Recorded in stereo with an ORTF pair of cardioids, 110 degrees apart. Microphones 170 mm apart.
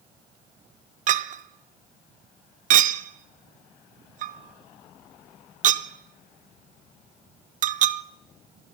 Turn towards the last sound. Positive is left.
turn(degrees=-50)